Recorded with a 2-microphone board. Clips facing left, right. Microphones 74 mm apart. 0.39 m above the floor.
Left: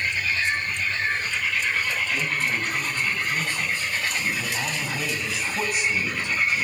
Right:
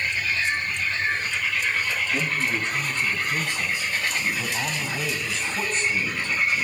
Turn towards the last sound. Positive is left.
turn(degrees=20)  # may be behind; listen again after turning